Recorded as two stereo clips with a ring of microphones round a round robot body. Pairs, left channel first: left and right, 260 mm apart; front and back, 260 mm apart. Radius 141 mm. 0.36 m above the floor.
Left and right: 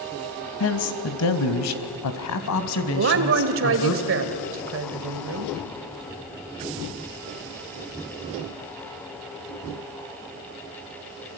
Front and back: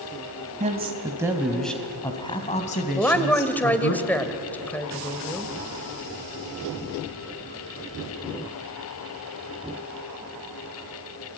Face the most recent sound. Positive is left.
turn(degrees=-80)